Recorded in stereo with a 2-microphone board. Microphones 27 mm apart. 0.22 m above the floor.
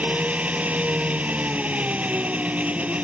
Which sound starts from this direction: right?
An engine running, at 0.0 s.